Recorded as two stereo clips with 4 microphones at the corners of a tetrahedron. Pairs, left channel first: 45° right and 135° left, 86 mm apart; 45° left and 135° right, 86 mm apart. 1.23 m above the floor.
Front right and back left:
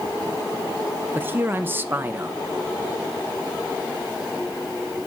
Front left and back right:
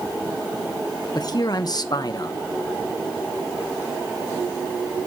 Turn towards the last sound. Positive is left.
turn(degrees=75)